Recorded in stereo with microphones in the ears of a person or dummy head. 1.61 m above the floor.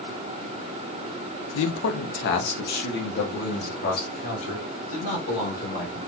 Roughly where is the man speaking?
Left.